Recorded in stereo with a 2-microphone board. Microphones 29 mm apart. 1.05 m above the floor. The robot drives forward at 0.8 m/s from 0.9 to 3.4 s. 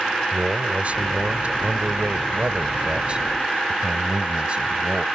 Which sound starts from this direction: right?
A man speaking, at 0.3 s.